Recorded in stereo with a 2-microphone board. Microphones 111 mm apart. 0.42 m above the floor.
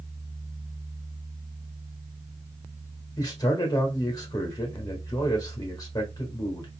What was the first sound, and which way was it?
A man speaking, 35° left (ahead or behind).